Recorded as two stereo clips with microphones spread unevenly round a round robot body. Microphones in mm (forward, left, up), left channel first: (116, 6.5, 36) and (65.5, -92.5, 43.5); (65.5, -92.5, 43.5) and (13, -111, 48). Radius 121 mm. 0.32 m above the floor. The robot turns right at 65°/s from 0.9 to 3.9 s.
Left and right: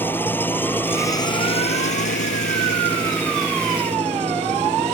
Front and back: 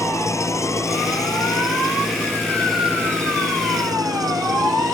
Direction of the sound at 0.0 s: 10° right.